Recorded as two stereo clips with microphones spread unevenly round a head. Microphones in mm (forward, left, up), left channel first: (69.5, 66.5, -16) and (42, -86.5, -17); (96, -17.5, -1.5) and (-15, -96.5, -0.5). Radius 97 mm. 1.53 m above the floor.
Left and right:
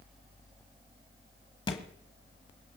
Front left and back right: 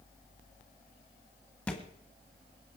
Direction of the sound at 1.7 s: 110° left.